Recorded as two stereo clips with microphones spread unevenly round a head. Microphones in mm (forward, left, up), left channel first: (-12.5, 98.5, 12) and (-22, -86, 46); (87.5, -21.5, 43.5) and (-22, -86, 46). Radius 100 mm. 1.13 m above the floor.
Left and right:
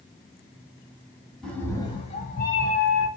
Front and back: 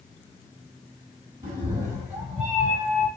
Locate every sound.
1.4 s a cat meowing: 170° right, 1.1 m; by 3.1 s 100° left, 1.5 m